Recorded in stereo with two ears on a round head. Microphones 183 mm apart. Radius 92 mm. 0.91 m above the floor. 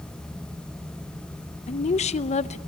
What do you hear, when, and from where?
1.7 s a woman speaking: 35° left (ahead or behind), 0.6 m